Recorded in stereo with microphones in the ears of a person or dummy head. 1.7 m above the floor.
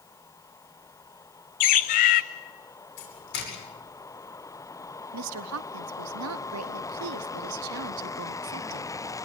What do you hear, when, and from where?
1.6 s a bird: 45° left (ahead or behind), 1.1 m
3.0 s a doorbell: 55° left (ahead or behind), 9.5 m
5.1 s a woman speaking: 70° right (ahead or behind), 0.9 m